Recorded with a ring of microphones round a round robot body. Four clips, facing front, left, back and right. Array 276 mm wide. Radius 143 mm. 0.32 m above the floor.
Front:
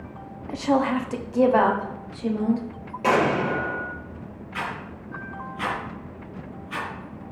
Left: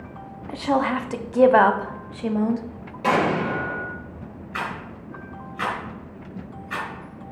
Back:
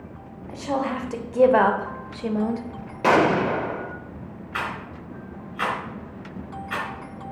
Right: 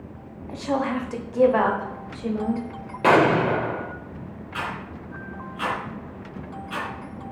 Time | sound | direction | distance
0.5 | a woman speaking | 55° left | 1.1 m
3.0 | an explosion | 120° right | 1.2 m
4.5 | a rattle | 165° left | 4.5 m